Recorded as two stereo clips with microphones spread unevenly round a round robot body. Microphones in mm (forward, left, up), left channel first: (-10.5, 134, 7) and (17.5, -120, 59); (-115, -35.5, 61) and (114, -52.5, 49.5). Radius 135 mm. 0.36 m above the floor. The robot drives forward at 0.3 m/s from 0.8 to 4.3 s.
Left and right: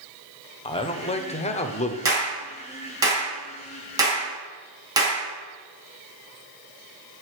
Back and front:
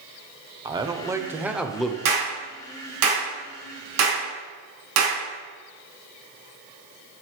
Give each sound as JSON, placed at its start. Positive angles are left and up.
{"t": 0.7, "sound": "a man speaking", "azimuth_deg": 55, "distance_m": 1.0}
{"t": 2.0, "sound": "a clap", "azimuth_deg": -5, "distance_m": 4.0}